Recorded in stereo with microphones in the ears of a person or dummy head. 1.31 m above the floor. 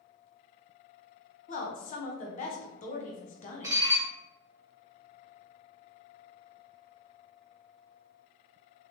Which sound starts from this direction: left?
A woman speaking, at 1.5 s.